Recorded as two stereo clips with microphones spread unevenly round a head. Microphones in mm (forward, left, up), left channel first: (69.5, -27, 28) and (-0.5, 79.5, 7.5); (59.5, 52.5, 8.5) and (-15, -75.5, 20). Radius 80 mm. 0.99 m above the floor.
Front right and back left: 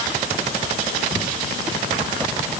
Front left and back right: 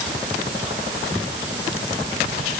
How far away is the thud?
I don't hear a thud.